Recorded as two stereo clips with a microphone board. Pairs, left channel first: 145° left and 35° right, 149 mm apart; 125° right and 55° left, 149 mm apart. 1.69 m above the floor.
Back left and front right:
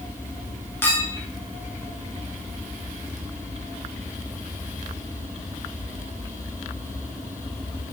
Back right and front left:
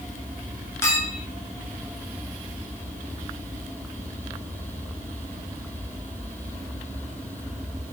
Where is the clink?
165° right, 0.6 m.